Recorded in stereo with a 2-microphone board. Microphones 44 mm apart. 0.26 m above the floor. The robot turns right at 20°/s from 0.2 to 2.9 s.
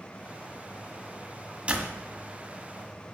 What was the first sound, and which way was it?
A door slam, 30° right (ahead or behind).